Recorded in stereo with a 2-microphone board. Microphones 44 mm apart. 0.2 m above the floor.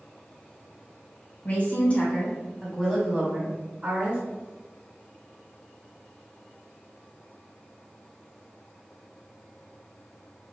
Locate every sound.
1.4 s a woman speaking: 40° left (ahead or behind), 1.9 m; by 4.2 s 35° right (ahead or behind), 1.9 m